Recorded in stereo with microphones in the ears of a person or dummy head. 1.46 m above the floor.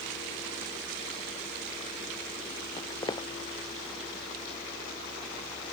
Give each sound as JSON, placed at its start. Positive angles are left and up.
{"t": 2.8, "sound": "footsteps", "side_deg": 20}